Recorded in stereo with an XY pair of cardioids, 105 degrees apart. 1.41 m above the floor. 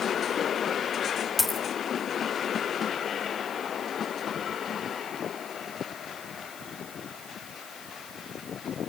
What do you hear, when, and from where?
1.4 s a dropped coin: 15° left, 2 m